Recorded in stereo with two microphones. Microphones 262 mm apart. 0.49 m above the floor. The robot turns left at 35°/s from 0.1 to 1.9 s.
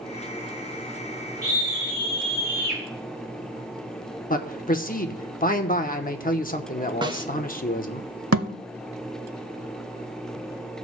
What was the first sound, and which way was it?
A scream, 70° right (ahead or behind).